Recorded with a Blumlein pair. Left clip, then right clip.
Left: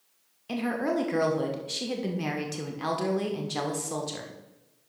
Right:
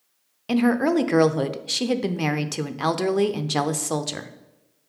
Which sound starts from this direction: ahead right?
A woman speaking, at 0.5 s.